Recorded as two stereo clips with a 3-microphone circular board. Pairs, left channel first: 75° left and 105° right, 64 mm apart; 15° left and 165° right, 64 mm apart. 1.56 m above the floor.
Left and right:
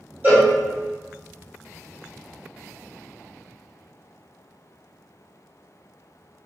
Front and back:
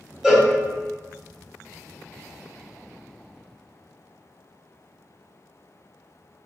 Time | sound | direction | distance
0.2 | a cowbell | 90° right | 1.5 m